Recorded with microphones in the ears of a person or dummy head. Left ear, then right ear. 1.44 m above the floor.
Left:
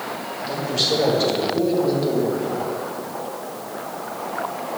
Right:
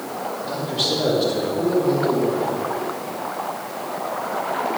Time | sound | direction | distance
0.4 | a man speaking | 70° left (ahead or behind) | 3 m